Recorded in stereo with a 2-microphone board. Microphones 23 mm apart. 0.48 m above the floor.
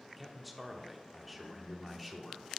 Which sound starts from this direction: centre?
A man speaking, at 0.2 s.